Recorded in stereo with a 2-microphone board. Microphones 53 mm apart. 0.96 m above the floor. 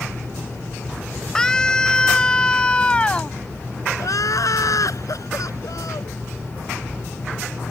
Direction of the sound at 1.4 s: 10° left (ahead or behind).